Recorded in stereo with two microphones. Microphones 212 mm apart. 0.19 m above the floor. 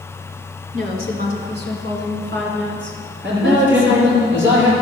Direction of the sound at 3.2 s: 65° right (ahead or behind).